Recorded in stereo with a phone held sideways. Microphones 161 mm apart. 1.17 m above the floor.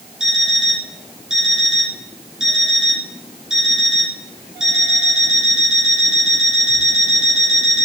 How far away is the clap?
No clap in this recording.